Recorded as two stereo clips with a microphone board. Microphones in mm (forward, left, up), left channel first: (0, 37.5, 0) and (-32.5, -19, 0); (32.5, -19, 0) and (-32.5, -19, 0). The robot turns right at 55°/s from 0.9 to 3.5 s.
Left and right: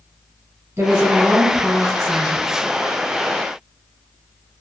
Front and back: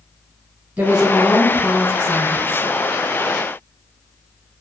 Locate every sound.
0.8 s a woman speaking: 120° right, 1.3 m; by 2.7 s 25° right, 1.3 m